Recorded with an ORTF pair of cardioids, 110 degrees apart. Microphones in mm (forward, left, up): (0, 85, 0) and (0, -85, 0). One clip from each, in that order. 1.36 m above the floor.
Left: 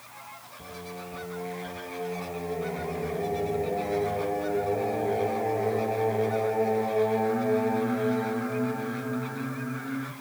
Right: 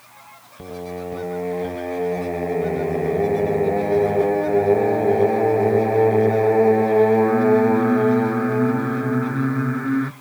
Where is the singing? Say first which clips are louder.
Right 11 dB; 65° right, 1.4 m.